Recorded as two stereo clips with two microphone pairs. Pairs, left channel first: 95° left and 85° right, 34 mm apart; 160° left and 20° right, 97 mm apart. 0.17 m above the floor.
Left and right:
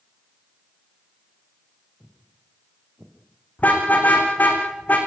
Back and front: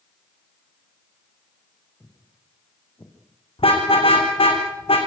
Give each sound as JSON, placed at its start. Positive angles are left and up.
{"t": 2.0, "sound": "footsteps", "azimuth_deg": -125, "distance_m": 4.5}
{"t": 3.6, "sound": "a car horn", "azimuth_deg": 135, "distance_m": 5.0}